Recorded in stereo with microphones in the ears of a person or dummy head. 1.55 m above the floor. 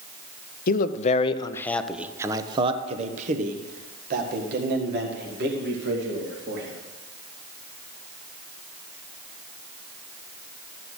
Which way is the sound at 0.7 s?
50° left (ahead or behind).